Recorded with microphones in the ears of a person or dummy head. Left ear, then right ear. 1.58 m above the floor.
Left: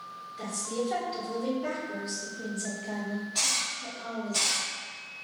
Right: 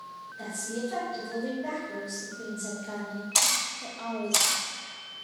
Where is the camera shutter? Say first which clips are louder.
Right 3 dB; 45° right (ahead or behind), 0.5 m.